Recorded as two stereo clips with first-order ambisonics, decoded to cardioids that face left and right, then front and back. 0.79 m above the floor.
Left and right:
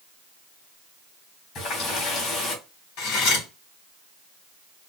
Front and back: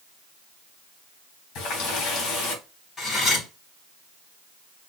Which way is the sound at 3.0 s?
75° left.